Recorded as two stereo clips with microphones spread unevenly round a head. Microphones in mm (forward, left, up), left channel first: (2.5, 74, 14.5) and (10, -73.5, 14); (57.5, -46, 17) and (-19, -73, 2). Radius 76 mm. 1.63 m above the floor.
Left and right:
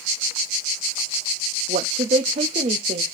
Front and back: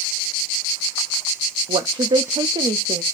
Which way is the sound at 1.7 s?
140° right.